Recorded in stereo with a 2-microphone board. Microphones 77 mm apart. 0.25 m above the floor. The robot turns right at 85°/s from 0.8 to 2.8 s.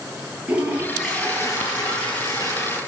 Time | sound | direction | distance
0.5 | a toilet flushing | 20° right | 6 m